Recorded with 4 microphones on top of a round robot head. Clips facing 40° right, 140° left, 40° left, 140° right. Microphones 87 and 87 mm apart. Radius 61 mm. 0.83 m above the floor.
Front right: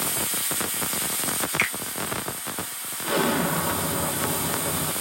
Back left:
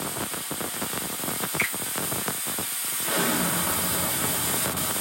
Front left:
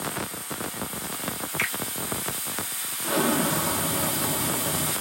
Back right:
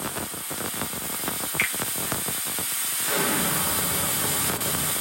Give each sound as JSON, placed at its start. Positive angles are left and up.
{"t": 1.6, "sound": "a finger snap", "azimuth_deg": -15, "distance_m": 1.5}
{"t": 3.0, "sound": "an explosion", "azimuth_deg": -5, "distance_m": 1.1}